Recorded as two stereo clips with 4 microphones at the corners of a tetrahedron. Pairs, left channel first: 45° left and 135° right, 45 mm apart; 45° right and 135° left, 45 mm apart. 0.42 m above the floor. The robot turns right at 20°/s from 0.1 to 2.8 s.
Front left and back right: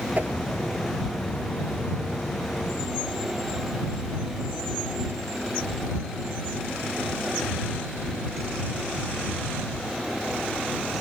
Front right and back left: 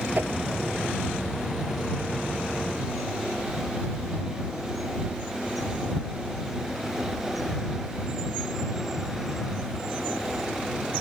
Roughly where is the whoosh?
Behind.